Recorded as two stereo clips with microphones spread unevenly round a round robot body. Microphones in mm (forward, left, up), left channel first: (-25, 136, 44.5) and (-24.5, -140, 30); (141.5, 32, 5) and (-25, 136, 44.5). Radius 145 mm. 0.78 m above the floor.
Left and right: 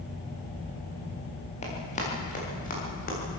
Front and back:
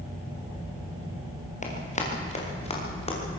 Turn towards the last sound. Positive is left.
turn(degrees=30)